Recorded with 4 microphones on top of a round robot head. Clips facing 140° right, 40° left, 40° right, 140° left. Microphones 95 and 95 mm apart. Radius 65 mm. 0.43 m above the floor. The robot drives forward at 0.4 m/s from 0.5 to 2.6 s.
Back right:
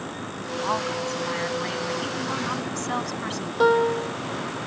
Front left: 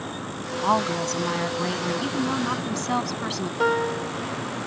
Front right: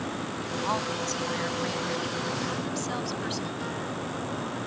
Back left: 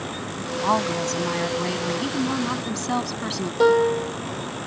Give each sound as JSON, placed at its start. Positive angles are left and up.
{"t": 0.6, "sound": "a woman speaking", "azimuth_deg": 95}
{"t": 3.6, "sound": "a piano", "azimuth_deg": 145}